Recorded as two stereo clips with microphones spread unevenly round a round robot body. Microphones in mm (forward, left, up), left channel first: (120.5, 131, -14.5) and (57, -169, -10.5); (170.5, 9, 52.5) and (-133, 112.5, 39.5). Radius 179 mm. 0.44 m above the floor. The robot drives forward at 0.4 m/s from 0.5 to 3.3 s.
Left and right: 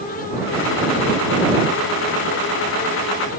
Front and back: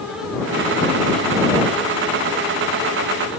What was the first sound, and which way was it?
Only background noise.